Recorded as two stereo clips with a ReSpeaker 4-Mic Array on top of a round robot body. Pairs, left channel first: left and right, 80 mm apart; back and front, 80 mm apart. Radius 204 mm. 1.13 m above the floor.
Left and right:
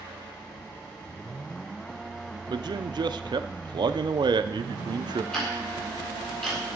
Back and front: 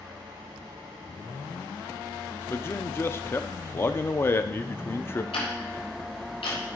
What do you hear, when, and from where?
2.5 s a man speaking: 120° right, 0.6 m
5.3 s ticking: 175° left, 1.7 m